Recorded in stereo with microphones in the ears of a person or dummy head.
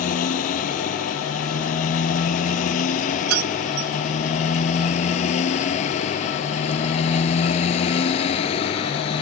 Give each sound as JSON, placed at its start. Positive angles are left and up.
{"t": 0.0, "sound": "a motorcycle", "side_deg": 40}
{"t": 3.3, "sound": "keys jangling", "side_deg": -85}